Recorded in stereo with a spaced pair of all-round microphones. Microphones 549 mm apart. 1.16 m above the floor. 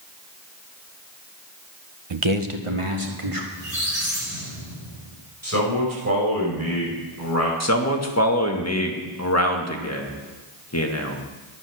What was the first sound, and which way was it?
A man speaking, 50° right (ahead or behind).